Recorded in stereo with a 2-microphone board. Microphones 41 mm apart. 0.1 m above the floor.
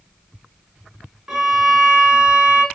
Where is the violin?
15° right (ahead or behind), 1.0 m.